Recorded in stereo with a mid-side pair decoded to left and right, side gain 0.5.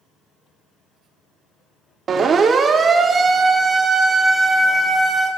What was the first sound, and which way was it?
A siren, 45° right.